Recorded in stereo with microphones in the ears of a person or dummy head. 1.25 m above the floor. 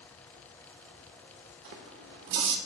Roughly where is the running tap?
Right.